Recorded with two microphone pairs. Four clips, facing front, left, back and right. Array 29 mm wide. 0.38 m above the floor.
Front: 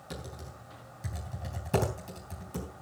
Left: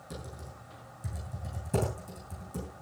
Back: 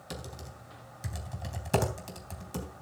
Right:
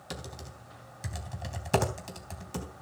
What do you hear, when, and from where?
0.1 s typing on a keyboard: 115° right, 3 m